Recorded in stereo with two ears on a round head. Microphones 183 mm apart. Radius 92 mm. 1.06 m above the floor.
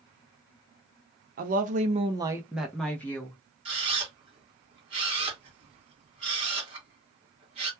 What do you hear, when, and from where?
1.4 s a woman speaking: 40° right (ahead or behind), 0.6 m; by 3.4 s 15° left (ahead or behind), 1.0 m
3.6 s a camera shutter: 25° right (ahead or behind), 1.4 m